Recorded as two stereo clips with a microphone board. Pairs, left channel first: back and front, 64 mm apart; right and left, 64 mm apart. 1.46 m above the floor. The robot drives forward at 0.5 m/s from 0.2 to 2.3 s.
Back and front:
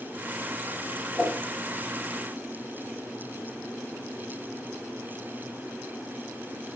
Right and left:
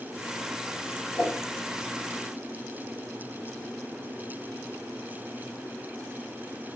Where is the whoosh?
110° right, 1.9 m; by 1.4 s 115° right, 1.9 m.